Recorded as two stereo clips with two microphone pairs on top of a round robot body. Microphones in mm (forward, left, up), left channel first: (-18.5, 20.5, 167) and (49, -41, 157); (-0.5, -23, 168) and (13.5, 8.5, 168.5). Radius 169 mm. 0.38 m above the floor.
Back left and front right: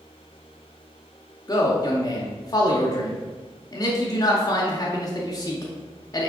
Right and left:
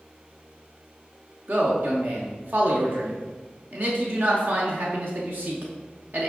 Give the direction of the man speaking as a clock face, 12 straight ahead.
9 o'clock.